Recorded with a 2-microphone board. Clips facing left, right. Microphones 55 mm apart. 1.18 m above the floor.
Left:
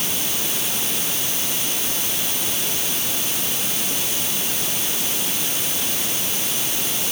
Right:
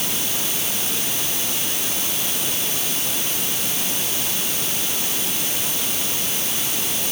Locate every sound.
Only background noise.